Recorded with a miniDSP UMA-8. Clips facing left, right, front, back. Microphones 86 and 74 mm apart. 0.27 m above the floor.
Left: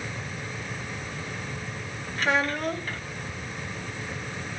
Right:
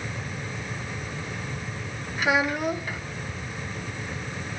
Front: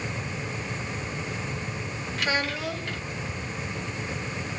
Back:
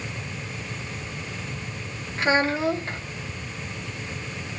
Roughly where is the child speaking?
Behind.